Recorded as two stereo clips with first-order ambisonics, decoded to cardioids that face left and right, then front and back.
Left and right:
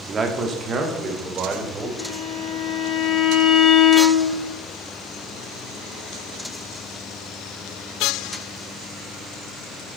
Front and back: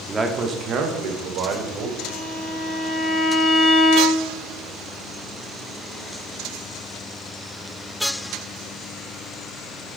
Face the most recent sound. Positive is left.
turn(degrees=80)